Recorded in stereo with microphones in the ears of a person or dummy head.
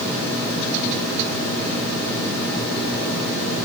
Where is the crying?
I don't hear crying.